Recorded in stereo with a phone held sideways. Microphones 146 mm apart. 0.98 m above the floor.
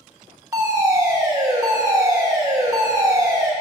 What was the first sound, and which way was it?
A fire alarm, 20° right (ahead or behind).